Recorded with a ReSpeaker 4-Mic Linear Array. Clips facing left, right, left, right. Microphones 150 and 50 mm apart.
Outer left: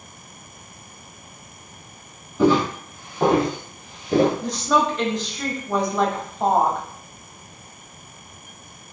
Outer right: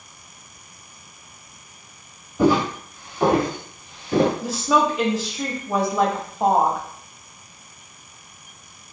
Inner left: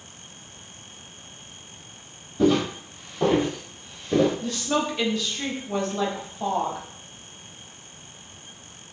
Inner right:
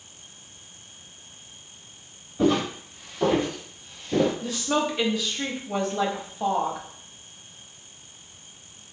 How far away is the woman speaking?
About 0.6 m.